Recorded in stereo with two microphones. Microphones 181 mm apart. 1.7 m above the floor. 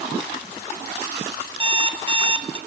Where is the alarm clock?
25° right (ahead or behind), 1.0 m.